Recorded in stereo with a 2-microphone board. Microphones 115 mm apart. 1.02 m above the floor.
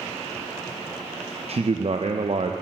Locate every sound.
1.5 s a man speaking: 55° right (ahead or behind), 0.5 m